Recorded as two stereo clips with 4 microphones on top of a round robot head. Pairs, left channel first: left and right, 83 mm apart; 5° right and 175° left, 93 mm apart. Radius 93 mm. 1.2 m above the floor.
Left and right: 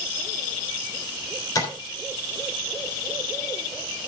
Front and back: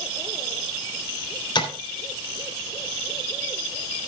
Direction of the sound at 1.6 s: 35° left.